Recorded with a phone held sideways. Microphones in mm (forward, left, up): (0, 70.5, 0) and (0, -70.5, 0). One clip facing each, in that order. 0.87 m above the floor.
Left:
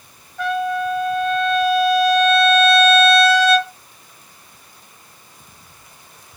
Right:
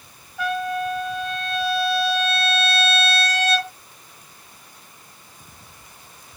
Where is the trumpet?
10° right (ahead or behind), 1.5 m.